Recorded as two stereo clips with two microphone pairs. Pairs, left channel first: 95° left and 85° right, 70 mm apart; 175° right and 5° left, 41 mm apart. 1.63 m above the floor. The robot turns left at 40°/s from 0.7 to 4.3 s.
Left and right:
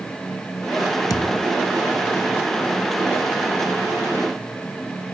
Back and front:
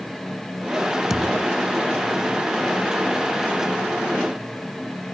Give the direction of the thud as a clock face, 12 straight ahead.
9 o'clock.